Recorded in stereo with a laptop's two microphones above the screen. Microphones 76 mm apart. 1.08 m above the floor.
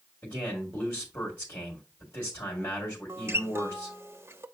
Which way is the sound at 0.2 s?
25° left (ahead or behind).